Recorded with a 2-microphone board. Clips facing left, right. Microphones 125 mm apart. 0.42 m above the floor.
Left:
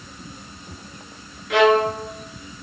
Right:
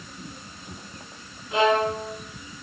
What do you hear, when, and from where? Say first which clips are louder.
1.5 s a violin: left 5 dB; 80° left, 3.5 m